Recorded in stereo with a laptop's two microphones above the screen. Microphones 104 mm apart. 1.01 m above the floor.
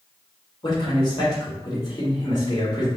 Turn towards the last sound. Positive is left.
turn(degrees=45)  # may be behind; listen again after turning